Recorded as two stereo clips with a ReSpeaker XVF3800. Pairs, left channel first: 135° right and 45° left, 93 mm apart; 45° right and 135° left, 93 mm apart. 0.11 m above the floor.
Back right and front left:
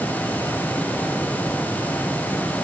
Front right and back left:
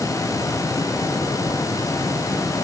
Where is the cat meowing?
I don't hear a cat meowing.